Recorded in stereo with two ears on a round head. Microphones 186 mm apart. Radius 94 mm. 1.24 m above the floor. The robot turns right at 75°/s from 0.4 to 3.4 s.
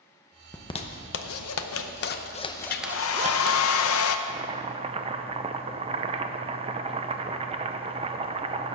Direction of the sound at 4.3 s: 30° right (ahead or behind).